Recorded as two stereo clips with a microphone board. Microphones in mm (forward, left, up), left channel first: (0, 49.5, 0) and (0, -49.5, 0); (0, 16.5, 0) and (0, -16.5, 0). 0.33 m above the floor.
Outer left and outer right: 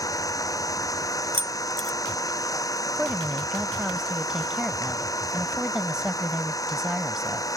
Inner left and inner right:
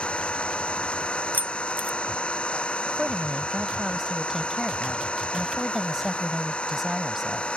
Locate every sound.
0.0 s an engine running: 40° left (ahead or behind)
1.3 s keys jangling: 65° right (ahead or behind)
2.9 s a woman speaking: 5° right (ahead or behind)